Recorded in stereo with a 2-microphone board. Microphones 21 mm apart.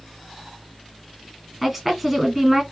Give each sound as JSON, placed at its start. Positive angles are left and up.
{"t": 1.6, "sound": "a woman speaking", "side_deg": -5, "distance_m": 1.3}